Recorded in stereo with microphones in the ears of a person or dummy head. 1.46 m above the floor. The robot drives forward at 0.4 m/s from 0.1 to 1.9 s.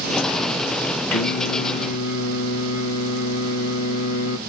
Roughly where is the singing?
Left.